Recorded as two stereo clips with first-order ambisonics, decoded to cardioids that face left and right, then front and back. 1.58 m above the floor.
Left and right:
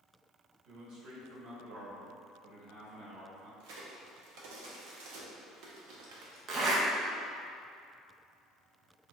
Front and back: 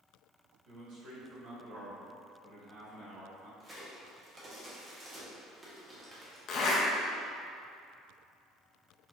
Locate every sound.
0.7 s a man speaking: 135° right, 1.4 m
3.6 s a crack: 105° right, 0.8 m
6.5 s a zipper: 40° right, 0.6 m